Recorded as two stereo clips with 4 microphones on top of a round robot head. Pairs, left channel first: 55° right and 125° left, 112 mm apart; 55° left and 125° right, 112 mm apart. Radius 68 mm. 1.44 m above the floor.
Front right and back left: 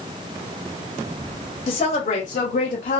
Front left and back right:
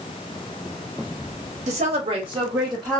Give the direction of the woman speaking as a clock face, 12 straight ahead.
3 o'clock.